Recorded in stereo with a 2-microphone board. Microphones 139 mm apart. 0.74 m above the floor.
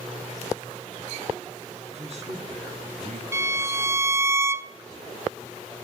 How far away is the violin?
About 0.5 m.